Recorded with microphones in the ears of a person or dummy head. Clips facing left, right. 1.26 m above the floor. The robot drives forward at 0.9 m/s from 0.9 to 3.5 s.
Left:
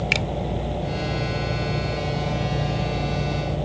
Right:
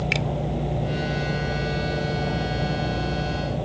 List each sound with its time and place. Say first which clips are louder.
0.1 s a finger snap: even; 5° right (ahead or behind)